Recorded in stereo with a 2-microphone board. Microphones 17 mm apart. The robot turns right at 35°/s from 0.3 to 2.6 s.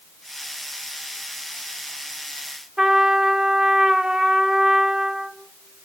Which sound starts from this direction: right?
A trumpet, at 2.8 s.